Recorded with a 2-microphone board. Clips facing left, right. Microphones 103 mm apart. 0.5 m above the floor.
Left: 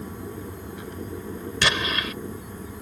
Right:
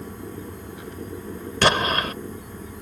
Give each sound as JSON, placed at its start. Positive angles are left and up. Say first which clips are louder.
{"t": 1.6, "sound": "an explosion", "louder": "right 6 dB", "side_deg": -45}